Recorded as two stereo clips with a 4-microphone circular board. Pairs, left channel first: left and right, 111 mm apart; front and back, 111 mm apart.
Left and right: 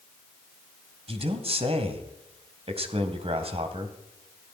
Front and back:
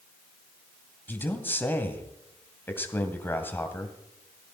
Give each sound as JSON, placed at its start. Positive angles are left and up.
{"t": 1.1, "sound": "a man speaking", "azimuth_deg": -70, "distance_m": 2.5}